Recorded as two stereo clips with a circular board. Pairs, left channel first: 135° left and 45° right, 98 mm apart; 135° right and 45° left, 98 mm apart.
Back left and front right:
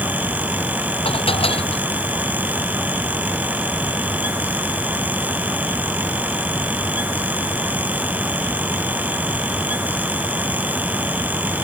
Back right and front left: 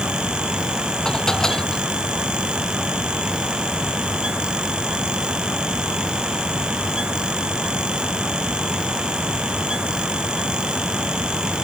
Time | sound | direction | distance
1.1 | dishes clattering | 140° left | ?